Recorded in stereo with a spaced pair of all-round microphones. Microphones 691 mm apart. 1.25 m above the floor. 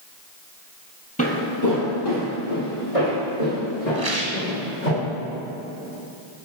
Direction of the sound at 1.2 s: 10° left (ahead or behind).